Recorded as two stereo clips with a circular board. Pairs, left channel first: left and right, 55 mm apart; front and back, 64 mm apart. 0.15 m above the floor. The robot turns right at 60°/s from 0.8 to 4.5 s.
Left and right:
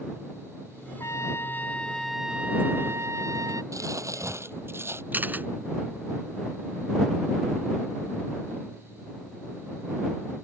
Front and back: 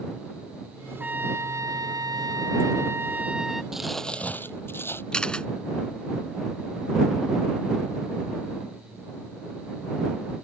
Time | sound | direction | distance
1.0 | a trumpet | 110° left | ?
3.7 | crumpling | 100° right | ?
5.1 | a camera shutter | 65° right | ?